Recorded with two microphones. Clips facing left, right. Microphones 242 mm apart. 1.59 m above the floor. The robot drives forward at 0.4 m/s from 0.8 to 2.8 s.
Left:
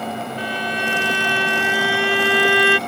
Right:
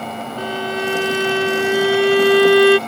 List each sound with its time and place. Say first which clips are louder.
0.4 s a violin: right 4 dB; 45° right (ahead or behind); by 2.8 s 40° right (ahead or behind)